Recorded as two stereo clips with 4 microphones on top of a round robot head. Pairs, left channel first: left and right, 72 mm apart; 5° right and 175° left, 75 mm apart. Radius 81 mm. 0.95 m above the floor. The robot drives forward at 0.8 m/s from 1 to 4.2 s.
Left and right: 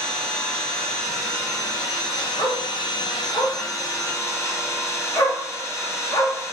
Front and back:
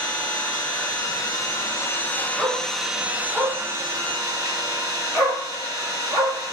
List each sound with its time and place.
0.0 s an engine running: 35° left, 1.7 m; by 6.5 s 140° left, 1.5 m
2.4 s a dog barking: 90° left, 3.5 m; by 6.4 s 115° left, 3.5 m